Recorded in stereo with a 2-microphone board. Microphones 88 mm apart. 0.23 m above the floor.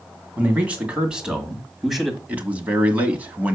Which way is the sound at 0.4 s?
15° right (ahead or behind).